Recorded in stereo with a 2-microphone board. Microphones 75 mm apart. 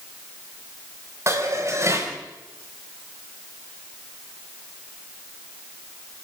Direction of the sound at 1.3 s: 40° right (ahead or behind).